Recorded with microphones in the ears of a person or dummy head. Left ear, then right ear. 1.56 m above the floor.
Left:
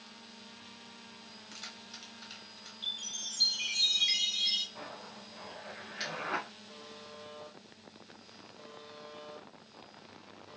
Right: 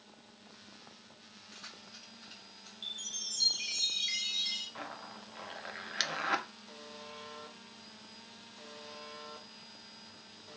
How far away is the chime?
About 1.3 m.